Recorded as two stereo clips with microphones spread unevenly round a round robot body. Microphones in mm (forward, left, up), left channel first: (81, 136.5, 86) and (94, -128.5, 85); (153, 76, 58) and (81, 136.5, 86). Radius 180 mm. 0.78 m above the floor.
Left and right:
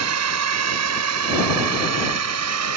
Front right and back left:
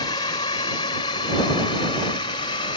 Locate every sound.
0.0 s a drone: 80° right; by 2.8 s 75° right